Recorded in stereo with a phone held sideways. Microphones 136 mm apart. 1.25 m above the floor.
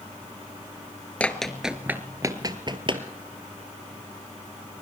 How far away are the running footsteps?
About 1.2 m.